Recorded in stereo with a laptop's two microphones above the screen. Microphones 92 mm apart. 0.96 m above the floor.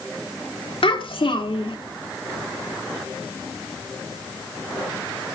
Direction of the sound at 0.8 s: 70° left (ahead or behind).